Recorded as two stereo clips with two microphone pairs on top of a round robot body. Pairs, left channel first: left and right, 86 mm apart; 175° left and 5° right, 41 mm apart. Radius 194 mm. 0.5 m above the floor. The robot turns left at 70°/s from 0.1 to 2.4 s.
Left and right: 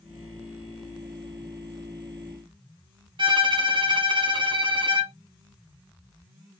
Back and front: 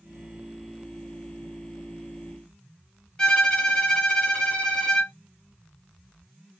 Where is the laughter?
I don't hear laughter.